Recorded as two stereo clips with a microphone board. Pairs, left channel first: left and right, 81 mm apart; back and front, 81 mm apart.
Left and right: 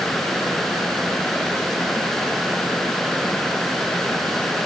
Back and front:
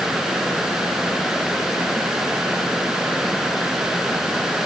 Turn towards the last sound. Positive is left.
No sound to turn to.